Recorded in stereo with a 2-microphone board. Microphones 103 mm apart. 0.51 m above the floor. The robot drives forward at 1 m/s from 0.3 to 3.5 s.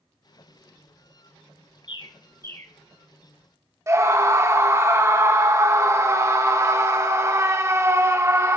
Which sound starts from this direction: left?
A bird, at 1.9 s.